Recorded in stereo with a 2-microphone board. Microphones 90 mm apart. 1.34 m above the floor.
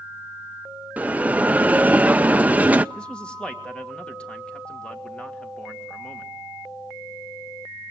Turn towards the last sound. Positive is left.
turn(degrees=10)  # may be behind; listen again after turning